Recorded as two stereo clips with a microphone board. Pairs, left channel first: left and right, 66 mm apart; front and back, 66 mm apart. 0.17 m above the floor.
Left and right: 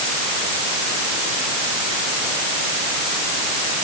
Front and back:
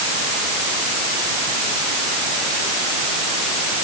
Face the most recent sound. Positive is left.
No sound to turn to.